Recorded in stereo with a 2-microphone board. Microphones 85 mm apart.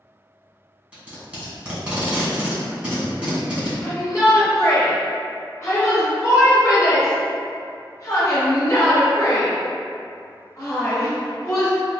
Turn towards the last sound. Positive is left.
turn(degrees=35)  # may be behind; listen again after turning